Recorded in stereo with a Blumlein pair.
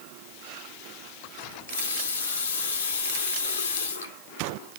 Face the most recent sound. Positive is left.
turn(degrees=65)